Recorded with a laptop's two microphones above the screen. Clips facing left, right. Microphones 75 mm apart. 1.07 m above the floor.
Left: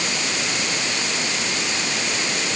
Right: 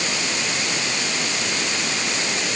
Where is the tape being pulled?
I don't hear tape being pulled.